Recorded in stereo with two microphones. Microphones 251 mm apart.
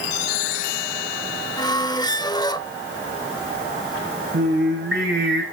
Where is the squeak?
15° left (ahead or behind), 0.7 m.